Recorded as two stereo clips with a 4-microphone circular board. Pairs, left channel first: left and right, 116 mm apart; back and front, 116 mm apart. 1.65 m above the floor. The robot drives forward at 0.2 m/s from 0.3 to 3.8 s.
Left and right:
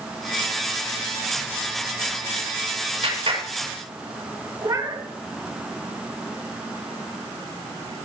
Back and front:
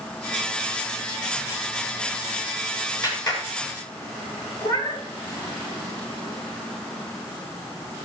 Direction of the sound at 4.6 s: 135° right.